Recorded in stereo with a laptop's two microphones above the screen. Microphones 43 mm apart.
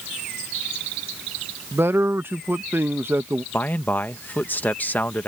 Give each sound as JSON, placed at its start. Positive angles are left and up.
{"t": 1.7, "sound": "a man speaking", "side_deg": -60}
{"t": 3.5, "sound": "a man speaking", "side_deg": 40}